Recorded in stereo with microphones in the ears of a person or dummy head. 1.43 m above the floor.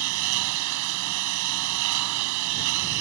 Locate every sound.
0.0 s a lawn mower: 75° right (ahead or behind)